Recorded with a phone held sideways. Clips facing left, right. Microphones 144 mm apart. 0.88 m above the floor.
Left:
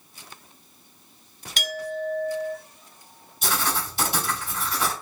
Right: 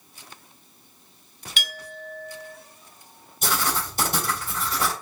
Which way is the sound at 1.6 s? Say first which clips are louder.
Left 10 dB; 40° left (ahead or behind).